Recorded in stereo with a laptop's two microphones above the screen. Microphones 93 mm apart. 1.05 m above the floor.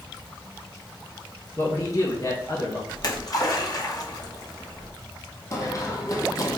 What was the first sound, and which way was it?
A man speaking, 35° left (ahead or behind).